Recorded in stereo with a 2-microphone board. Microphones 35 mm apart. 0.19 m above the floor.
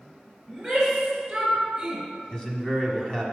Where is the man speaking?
20° left (ahead or behind), 1.3 m.